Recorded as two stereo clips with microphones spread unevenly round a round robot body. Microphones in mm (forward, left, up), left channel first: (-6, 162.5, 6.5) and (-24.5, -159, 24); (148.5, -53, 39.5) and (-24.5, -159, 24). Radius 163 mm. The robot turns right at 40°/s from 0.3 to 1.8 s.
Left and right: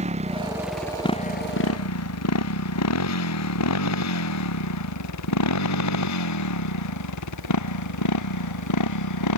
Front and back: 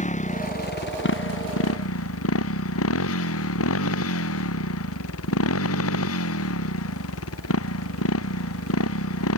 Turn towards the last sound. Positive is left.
turn(degrees=50)